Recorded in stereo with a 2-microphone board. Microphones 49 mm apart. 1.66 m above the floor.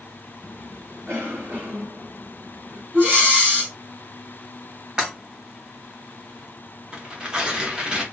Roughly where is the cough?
Right.